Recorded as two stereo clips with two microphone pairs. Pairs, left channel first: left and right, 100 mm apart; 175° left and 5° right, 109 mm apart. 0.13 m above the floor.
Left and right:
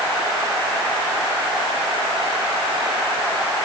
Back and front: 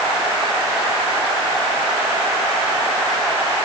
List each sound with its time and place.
Only background noise.